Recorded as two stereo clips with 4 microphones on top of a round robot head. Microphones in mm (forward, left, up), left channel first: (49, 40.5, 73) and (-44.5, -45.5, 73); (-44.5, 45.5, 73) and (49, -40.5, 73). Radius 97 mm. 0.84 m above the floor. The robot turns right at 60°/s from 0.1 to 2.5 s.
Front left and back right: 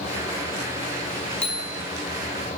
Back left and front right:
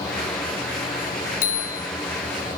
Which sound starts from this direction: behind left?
A bicycle bell, at 1.4 s.